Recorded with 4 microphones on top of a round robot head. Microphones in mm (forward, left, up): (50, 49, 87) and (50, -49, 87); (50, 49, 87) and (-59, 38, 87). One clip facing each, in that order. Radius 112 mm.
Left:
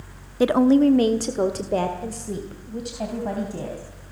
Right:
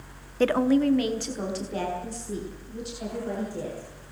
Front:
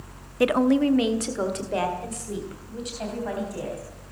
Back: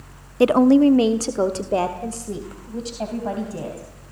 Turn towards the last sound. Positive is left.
turn(degrees=130)